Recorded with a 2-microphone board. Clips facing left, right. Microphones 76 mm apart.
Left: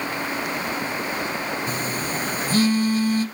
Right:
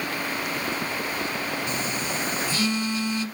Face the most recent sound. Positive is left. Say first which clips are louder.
# left 2 dB
turn(degrees=40)  # may be behind; listen again after turning